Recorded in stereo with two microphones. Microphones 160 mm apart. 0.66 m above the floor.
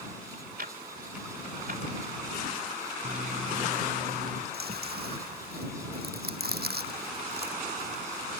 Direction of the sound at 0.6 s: 70° right (ahead or behind).